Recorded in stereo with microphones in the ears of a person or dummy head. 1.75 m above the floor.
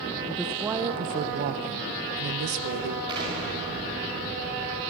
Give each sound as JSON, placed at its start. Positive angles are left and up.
{"t": 0.3, "sound": "a woman speaking", "side_deg": 5, "distance_m": 0.8}
{"t": 3.1, "sound": "an explosion", "side_deg": -25, "distance_m": 5.5}